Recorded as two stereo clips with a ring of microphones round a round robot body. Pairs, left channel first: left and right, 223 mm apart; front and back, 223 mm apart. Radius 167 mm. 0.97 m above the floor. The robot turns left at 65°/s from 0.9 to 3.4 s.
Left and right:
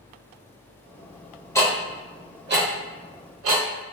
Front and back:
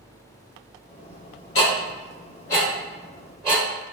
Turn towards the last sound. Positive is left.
turn(degrees=-110)